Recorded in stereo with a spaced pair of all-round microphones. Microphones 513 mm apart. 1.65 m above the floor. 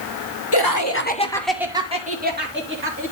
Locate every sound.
0.5 s laughter: 50° left (ahead or behind), 0.9 m; by 3.1 s 25° right (ahead or behind), 2.5 m